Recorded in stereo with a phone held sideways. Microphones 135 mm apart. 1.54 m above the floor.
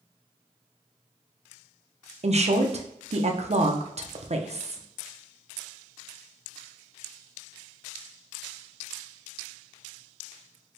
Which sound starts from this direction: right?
A woman speaking, at 2.2 s.